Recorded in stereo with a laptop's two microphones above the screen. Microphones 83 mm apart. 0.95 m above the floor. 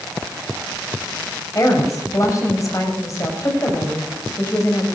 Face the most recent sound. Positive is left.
turn(degrees=40)  # may be behind; listen again after turning